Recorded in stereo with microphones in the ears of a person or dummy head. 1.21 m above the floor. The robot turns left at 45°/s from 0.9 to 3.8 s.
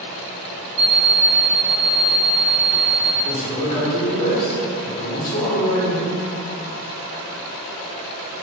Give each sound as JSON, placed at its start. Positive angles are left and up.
{"t": 0.8, "sound": "an alarm clock", "azimuth_deg": -55, "distance_m": 0.5}
{"t": 3.2, "sound": "a man speaking", "side_deg": 75, "distance_m": 1.9}